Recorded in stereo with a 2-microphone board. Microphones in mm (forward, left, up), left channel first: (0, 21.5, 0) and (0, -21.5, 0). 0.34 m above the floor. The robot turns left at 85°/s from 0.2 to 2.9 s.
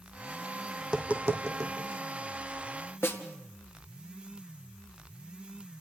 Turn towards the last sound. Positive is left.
turn(degrees=60)  # may be behind; listen again after turning